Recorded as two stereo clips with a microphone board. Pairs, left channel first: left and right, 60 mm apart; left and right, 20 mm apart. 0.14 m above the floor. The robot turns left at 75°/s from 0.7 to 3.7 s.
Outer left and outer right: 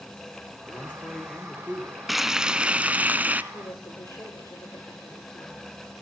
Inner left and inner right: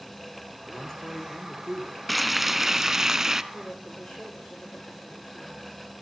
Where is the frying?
Centre (ahead or behind), 0.6 m; by 3.4 s 25° right (ahead or behind), 0.6 m.